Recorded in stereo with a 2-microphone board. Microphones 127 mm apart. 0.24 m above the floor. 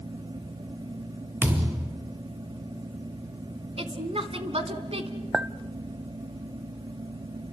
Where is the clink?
5° right (ahead or behind), 0.7 m.